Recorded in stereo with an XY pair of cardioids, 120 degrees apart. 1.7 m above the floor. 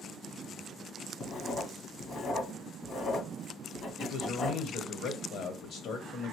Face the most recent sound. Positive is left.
turn(degrees=60)